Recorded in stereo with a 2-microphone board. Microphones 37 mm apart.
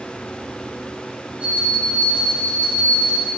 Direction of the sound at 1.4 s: 40° right (ahead or behind).